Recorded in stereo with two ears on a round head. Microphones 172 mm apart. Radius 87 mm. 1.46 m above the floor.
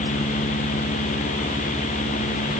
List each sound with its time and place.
Only background noise.